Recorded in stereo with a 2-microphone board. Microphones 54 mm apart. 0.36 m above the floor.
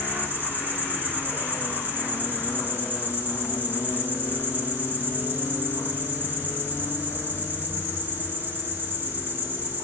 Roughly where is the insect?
Right.